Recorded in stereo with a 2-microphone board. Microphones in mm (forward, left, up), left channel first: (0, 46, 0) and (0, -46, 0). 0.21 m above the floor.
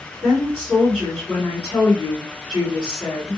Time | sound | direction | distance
0.2 | a woman speaking | 5° right (ahead or behind) | 2 m